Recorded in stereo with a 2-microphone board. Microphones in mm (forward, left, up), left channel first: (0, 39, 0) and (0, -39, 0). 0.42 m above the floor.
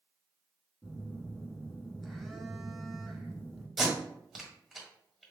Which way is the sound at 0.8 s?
Centre (ahead or behind).